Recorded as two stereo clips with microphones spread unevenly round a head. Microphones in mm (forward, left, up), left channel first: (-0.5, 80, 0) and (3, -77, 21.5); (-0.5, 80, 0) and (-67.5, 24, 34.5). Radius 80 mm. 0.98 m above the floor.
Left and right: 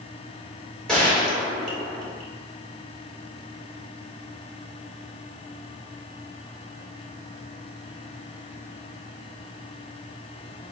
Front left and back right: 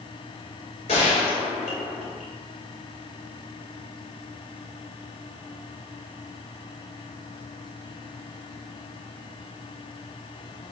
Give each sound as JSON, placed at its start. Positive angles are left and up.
{"t": 0.9, "sound": "a gunshot", "azimuth_deg": 5, "distance_m": 1.0}